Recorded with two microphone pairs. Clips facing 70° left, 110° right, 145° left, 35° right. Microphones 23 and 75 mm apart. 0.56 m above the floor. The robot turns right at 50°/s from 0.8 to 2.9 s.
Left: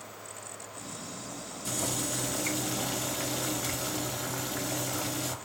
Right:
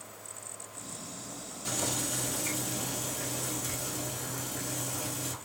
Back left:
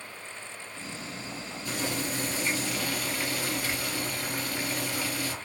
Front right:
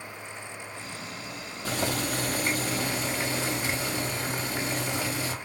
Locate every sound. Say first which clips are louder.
1.6 s boiling: even, front right 3 dB; 35° right, 0.8 m; by 5.3 s 30° left, 0.8 m